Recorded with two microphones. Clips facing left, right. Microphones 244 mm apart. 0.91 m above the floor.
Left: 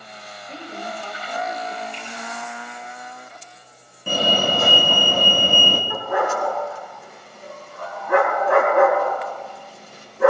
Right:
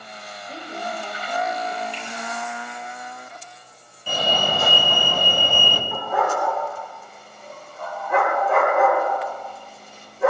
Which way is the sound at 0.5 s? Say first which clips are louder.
Right 1 dB; 10° right (ahead or behind).